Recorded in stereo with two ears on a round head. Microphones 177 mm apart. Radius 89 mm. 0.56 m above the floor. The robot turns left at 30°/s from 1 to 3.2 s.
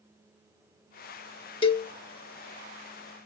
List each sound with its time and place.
1.6 s a cowbell: 25° left (ahead or behind), 0.7 m